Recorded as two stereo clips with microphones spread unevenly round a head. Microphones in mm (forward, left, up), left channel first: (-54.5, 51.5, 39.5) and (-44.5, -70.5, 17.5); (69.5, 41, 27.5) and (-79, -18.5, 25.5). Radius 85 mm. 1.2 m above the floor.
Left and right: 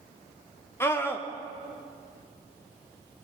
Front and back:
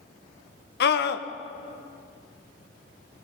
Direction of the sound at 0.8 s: 15° left.